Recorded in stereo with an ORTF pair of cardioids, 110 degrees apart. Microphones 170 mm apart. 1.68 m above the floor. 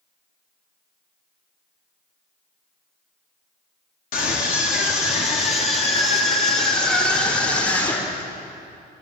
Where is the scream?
55° left, 4.5 m; by 8.3 s 20° left, 5.5 m.